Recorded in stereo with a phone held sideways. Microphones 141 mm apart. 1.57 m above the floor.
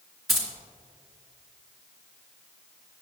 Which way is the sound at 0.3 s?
Centre (ahead or behind).